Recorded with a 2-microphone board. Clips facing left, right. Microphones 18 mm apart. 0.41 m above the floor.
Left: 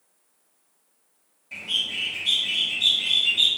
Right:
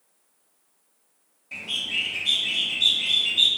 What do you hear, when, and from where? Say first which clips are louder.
1.5 s a bird: left 1 dB; 5° right (ahead or behind), 1.0 m